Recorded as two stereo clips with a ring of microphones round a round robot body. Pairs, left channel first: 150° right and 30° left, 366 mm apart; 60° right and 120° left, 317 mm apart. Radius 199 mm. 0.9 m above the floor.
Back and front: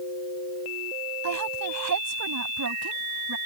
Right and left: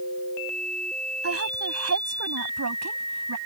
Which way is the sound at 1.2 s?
75° left.